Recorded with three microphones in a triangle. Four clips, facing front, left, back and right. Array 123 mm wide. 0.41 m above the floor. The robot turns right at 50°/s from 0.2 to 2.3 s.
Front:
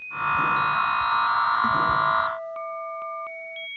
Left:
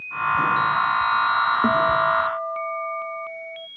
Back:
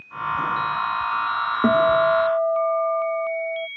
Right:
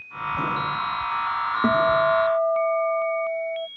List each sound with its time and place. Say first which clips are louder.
1.6 s a guitar: right 4 dB, back 5 dB; straight behind; by 3.7 s 145° right